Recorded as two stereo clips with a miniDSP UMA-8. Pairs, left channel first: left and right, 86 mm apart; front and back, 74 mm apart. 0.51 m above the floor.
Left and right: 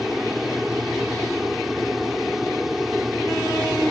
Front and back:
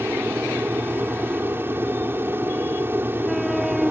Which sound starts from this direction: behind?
An aircraft, at 0.0 s.